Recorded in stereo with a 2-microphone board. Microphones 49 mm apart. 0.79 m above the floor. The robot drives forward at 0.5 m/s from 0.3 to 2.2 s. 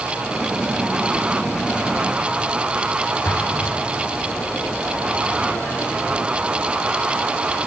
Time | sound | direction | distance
3.2 | an explosion | 40° left (ahead or behind) | 2.5 m